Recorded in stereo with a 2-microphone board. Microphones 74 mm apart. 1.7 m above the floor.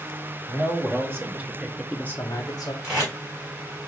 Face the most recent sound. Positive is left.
turn(degrees=-10)  # may be behind; listen again after turning